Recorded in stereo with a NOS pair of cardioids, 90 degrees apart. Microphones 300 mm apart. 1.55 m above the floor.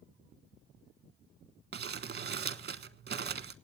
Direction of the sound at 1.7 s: 35° right.